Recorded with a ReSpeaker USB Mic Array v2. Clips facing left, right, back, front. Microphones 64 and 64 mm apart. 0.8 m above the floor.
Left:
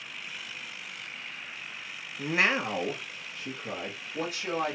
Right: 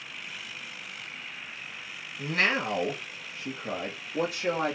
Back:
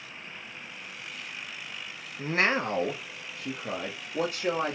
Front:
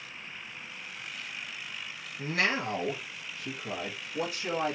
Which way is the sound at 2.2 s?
140° left.